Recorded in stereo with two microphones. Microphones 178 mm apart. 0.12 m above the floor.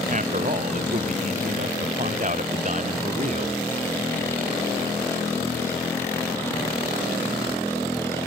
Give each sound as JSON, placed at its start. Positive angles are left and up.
{"t": 0.1, "sound": "a man speaking", "side_deg": -45}